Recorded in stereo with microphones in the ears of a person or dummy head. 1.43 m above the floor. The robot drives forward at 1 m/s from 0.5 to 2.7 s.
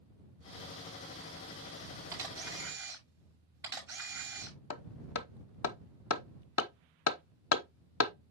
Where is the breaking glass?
I don't hear breaking glass.